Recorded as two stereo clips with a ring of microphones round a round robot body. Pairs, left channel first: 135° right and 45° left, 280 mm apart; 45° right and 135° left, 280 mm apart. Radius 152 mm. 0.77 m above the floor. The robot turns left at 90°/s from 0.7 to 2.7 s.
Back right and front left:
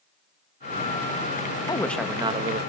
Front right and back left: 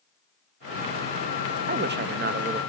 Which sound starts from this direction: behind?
A man speaking, at 1.7 s.